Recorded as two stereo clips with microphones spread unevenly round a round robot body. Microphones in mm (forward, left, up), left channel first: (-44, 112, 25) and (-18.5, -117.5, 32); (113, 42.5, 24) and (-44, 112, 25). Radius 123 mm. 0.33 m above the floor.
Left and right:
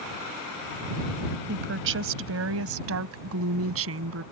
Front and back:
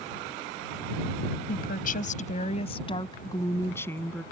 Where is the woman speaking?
50° right; by 4.2 s 110° right.